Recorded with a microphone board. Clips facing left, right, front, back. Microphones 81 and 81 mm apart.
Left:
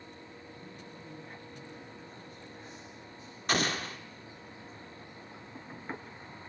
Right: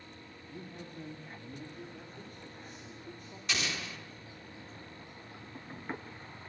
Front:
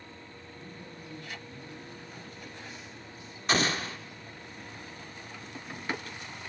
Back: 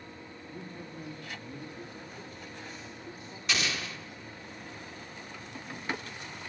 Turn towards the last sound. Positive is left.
turn(degrees=50)